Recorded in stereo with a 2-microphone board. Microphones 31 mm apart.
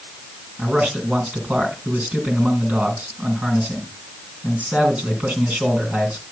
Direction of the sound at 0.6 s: 50° right (ahead or behind).